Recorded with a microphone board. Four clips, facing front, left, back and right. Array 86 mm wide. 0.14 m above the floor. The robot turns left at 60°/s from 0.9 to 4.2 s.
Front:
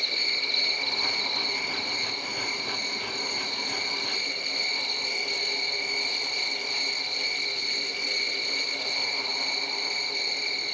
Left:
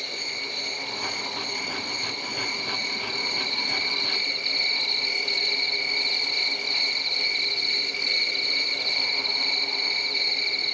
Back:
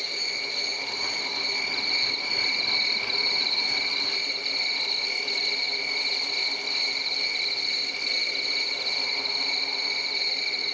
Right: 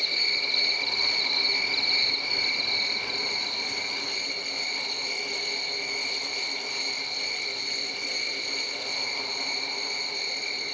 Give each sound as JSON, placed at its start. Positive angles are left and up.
{"t": 0.0, "sound": "an insect", "azimuth_deg": -40, "distance_m": 1.1}